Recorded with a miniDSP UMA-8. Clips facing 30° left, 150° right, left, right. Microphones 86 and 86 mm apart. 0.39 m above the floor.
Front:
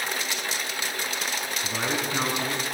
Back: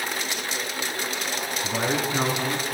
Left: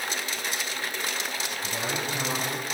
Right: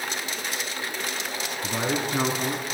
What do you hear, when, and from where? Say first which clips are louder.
1.6 s a man speaking: back 4 dB, right 6 dB; 60° right, 5 m; by 2.6 s 65° right, 4 m